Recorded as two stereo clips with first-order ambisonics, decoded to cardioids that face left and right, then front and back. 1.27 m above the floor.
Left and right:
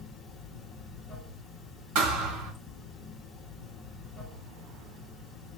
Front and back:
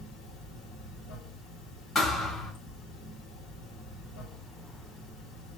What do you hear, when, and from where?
0.0 s running water: 15° left, 1.8 m
1.9 s a thud: 70° right, 3 m